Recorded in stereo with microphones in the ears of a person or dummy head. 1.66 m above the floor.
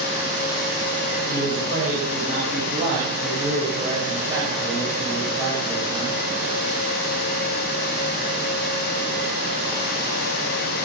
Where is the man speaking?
40° right (ahead or behind), 8.5 m; by 6.2 s 10° right (ahead or behind), 8.5 m.